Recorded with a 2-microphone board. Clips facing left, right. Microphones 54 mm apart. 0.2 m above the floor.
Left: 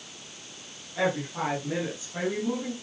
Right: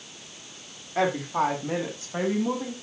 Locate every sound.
0.9 s a woman speaking: 50° right (ahead or behind), 8.5 m; by 2.7 s 45° right (ahead or behind), 7 m